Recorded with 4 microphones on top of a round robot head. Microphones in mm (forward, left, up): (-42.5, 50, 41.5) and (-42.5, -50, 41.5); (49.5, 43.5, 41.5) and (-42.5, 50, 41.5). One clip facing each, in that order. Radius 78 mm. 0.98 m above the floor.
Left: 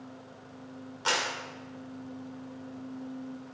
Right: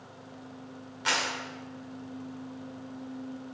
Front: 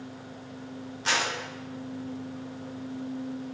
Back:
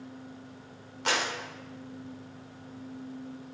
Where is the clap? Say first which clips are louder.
Even, front 1 dB; 150° left, 3 m.